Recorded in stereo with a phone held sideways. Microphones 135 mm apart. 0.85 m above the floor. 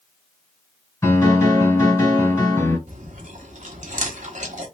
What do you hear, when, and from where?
1.0 s a piano: 20° left (ahead or behind), 2 m
2.9 s chewing: 65° right (ahead or behind), 1.3 m